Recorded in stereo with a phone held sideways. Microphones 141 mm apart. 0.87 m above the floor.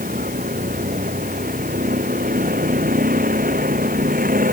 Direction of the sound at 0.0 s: 90° right.